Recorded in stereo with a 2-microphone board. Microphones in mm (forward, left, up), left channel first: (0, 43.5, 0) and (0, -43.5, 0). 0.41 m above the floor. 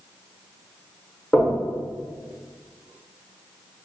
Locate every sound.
1.3 s knocking: 5° left (ahead or behind), 0.9 m